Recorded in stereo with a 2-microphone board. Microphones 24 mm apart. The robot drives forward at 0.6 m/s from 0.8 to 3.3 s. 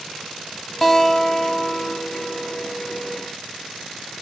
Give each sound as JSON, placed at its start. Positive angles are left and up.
{"t": 0.8, "sound": "a guitar", "side_deg": 10, "distance_m": 1.2}